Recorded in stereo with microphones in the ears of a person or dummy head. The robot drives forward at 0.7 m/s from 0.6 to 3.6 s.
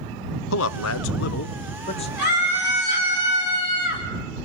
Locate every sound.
0.5 s a man speaking: 75° left (ahead or behind), 0.5 m; by 2.1 s 30° left (ahead or behind), 1.0 m
2.2 s a scream: 60° left (ahead or behind), 6.5 m; by 4.0 s 70° left (ahead or behind), 6 m